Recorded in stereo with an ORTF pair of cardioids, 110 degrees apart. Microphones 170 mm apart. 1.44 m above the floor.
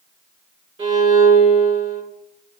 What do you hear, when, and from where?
0.8 s a violin: 35° right, 1.8 m